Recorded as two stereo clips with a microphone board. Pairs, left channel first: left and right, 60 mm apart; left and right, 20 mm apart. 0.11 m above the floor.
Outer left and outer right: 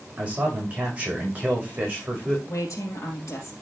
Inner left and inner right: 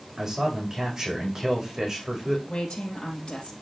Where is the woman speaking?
65° left (ahead or behind), 4 m.